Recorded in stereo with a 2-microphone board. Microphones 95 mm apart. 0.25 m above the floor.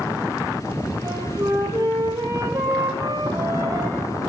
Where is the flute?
35° right (ahead or behind), 5.5 m.